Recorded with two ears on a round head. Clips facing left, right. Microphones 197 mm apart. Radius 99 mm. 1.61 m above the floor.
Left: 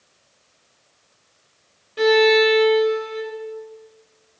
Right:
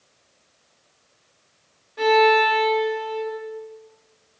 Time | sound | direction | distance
2.0 | a violin | 40° left (ahead or behind) | 1.8 m